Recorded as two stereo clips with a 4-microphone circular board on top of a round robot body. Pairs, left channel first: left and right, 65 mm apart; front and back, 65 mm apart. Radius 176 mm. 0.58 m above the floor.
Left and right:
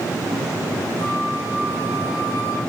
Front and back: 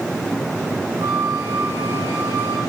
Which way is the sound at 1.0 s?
140° left.